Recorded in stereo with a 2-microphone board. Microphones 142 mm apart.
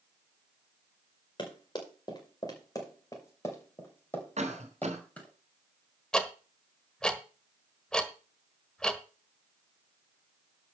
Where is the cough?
55° right (ahead or behind), 2.5 m.